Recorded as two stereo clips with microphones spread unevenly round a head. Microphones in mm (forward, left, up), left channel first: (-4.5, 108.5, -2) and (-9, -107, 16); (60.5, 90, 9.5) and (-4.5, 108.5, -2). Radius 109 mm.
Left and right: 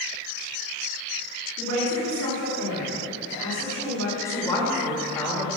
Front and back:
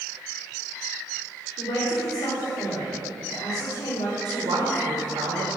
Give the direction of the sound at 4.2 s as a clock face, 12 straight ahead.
6 o'clock.